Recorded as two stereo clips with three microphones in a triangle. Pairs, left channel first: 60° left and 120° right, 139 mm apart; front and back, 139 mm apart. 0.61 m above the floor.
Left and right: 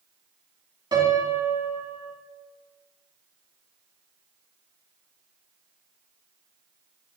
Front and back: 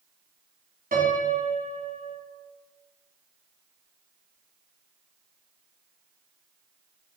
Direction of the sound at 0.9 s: 175° right.